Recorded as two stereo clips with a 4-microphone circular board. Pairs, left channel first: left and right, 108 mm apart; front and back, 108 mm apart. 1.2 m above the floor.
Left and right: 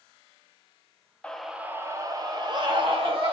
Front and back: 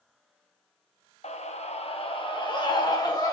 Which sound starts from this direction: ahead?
A scream, at 1.2 s.